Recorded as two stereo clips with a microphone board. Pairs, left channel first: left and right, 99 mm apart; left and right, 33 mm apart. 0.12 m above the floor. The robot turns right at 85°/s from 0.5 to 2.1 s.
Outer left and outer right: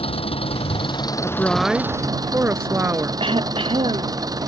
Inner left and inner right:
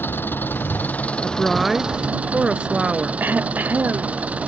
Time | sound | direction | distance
0.0 | an engine running | 85° left | ?
1.2 | a woman speaking | 145° left | ?
3.2 | throat clearing | 60° right (ahead or behind) | ?